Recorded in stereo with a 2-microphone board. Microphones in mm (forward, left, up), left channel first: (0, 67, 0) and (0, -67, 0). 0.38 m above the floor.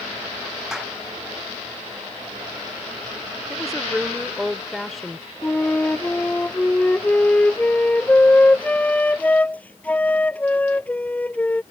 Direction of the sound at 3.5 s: Centre (ahead or behind).